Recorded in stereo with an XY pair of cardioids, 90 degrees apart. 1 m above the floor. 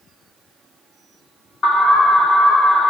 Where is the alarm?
55° left, 2.5 m.